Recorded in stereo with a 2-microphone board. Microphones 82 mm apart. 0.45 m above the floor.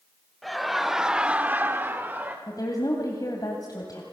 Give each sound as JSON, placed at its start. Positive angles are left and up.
{"t": 0.4, "sound": "laughter", "side_deg": 0, "distance_m": 1.6}
{"t": 2.5, "sound": "a woman speaking", "side_deg": 50, "distance_m": 2.0}